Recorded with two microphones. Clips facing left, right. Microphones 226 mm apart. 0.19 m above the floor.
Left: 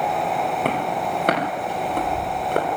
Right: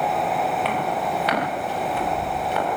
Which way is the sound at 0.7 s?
50° left (ahead or behind).